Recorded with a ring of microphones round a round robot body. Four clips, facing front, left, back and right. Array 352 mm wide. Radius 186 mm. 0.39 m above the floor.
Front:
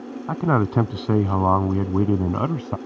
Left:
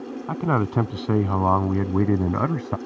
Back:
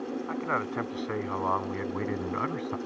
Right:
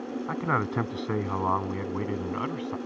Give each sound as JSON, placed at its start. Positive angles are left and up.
{"t": 0.3, "sound": "a man speaking", "azimuth_deg": 25}